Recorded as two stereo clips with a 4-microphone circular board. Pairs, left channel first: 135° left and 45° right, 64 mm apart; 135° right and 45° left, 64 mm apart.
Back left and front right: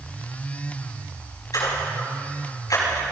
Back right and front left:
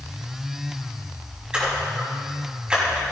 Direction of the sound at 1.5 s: 120° left.